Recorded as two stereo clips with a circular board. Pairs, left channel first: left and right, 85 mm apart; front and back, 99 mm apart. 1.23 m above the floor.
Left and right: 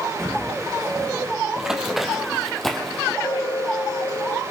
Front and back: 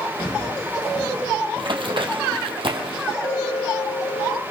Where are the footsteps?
5° left, 6 m.